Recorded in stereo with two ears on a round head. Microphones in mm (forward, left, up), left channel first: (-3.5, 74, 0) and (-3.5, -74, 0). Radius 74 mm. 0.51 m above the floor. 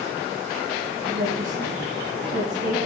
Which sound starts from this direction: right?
A woman speaking, at 1.1 s.